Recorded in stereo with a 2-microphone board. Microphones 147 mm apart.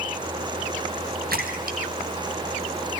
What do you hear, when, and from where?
1.3 s a splash: 90° right, 3 m